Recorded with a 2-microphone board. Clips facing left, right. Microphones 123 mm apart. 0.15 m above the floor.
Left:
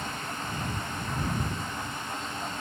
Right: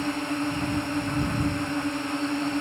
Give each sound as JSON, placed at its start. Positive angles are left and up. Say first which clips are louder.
{"t": 0.0, "sound": "a drone", "louder": "right 9 dB", "side_deg": -60}